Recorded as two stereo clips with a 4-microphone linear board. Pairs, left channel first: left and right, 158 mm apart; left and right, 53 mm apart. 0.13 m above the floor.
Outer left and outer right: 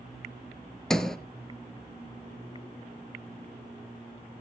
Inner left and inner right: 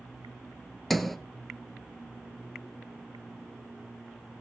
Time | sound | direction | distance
0.9 | a sliding door | 5° left (ahead or behind) | 0.5 m